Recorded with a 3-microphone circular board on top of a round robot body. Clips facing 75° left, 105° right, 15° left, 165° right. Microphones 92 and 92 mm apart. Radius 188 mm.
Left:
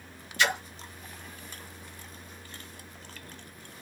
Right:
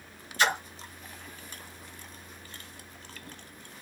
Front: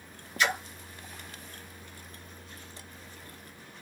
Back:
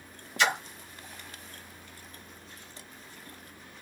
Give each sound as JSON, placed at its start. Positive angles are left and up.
{"t": 0.4, "sound": "a splash", "azimuth_deg": -155, "distance_m": 2.5}